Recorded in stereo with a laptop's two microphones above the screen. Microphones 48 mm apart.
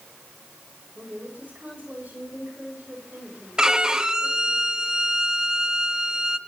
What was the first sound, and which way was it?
A woman speaking, 40° right (ahead or behind).